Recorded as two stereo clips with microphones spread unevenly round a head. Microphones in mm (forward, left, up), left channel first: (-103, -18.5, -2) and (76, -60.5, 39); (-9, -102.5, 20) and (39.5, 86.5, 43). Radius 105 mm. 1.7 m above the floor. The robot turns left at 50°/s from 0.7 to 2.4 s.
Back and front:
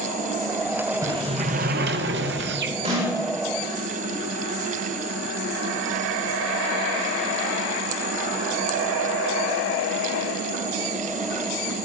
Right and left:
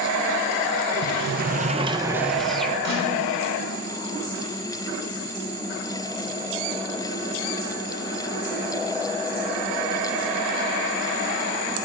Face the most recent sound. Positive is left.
turn(degrees=45)